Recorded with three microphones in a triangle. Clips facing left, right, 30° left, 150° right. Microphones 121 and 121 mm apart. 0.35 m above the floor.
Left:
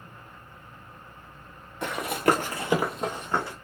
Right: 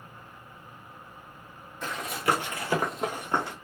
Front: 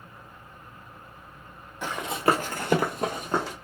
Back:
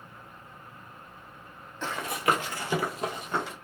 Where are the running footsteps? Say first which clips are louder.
Left 5 dB, front 3 dB; 105° left, 0.8 m; by 3.5 s 20° right, 1.0 m.